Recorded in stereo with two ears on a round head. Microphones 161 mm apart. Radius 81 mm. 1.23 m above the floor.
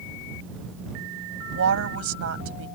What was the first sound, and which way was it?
A woman speaking, 80° right.